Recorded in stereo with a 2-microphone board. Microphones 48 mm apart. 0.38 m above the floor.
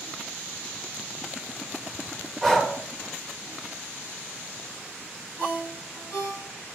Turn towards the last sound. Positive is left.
turn(degrees=40)  # may be behind; listen again after turning